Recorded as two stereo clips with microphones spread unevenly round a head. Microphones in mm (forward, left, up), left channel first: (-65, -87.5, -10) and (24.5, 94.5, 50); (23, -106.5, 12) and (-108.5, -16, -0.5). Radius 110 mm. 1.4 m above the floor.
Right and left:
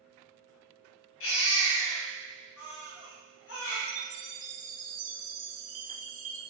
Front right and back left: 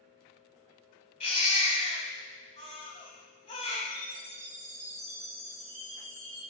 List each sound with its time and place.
1.2 s a baby crying: 80° right, 3 m
3.9 s a chime: 90° left, 0.8 m